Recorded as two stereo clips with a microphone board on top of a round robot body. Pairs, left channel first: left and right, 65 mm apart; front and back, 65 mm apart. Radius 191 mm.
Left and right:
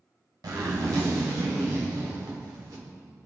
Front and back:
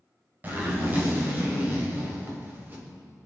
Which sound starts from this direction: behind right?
A zipper, at 0.4 s.